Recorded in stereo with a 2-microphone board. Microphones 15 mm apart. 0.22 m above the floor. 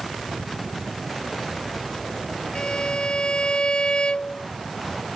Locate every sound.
2.5 s a violin: 70° left (ahead or behind)